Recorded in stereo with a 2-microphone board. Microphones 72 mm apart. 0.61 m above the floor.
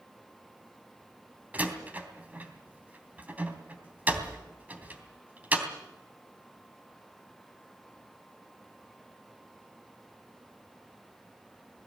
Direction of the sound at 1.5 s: 20° right (ahead or behind).